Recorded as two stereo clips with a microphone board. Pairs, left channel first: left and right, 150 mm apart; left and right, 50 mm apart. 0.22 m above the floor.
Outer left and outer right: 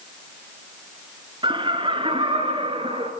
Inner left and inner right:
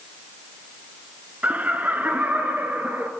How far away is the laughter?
About 3 m.